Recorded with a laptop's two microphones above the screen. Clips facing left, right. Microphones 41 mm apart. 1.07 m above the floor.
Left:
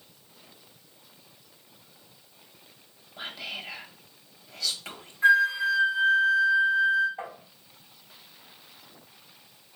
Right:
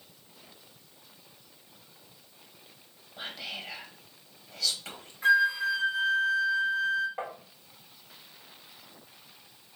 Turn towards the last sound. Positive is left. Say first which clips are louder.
# right 1 dB
turn(degrees=-75)  # may be behind; listen again after turning